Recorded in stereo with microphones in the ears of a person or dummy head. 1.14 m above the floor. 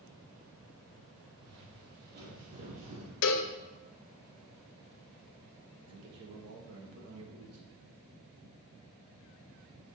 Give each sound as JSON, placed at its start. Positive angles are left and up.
{"t": 1.4, "sound": "footsteps", "side_deg": -60, "distance_m": 2.5}
{"t": 3.2, "sound": "a cowbell", "side_deg": 65, "distance_m": 0.5}
{"t": 5.9, "sound": "a man speaking", "side_deg": -70, "distance_m": 1.5}